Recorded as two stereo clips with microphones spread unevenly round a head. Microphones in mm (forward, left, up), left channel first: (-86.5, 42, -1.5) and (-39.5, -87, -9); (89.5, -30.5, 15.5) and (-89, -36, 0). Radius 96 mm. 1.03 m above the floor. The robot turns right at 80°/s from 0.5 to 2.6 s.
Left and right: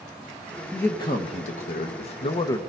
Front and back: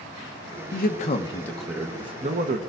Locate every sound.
0.7 s a man speaking: 25° left, 1.1 m; by 2.6 s 175° left, 1.1 m